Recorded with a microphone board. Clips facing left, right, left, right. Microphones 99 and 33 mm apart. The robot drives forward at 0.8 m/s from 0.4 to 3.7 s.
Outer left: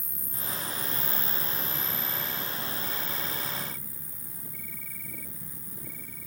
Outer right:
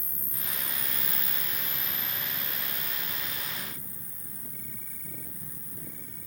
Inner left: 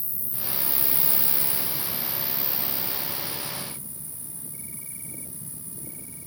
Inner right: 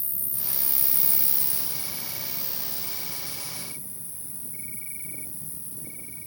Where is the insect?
60° right (ahead or behind); by 6.3 s 25° right (ahead or behind).